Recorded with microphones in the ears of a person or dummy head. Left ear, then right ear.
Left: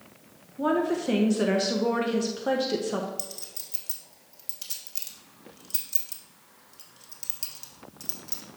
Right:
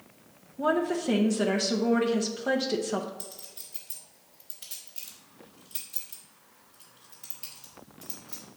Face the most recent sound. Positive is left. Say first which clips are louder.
# left 5 dB
turn(degrees=65)  # may be behind; listen again after turning